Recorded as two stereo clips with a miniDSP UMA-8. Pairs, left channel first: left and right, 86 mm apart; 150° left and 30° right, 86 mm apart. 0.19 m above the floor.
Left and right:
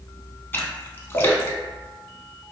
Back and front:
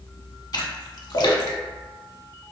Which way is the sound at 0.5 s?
150° left.